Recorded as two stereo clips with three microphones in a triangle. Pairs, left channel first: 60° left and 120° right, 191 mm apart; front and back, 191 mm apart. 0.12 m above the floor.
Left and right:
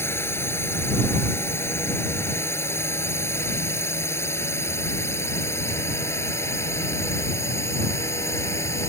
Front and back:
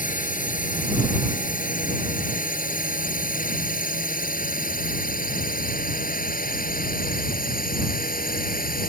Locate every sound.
0.0 s a drone: 15° right; by 8.9 s 10° right